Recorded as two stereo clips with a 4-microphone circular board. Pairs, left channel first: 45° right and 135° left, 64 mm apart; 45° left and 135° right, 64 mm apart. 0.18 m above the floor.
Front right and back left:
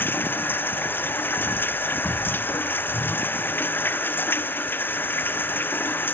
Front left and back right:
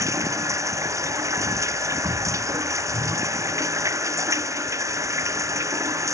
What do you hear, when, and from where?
0.0 s running water: 100° right